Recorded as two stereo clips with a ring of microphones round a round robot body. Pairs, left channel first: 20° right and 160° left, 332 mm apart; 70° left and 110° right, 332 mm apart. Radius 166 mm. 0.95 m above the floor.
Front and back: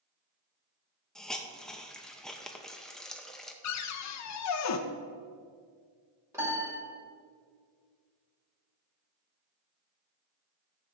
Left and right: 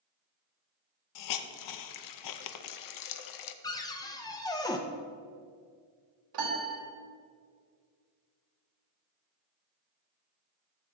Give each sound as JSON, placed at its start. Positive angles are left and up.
{"t": 1.1, "sound": "a hiss", "azimuth_deg": 65, "distance_m": 0.6}
{"t": 3.6, "sound": "a cupboard door", "azimuth_deg": -10, "distance_m": 0.6}
{"t": 6.3, "sound": "a piano", "azimuth_deg": -120, "distance_m": 2.5}